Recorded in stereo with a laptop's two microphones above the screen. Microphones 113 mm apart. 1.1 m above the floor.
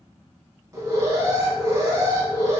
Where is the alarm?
30° right (ahead or behind), 1.2 m.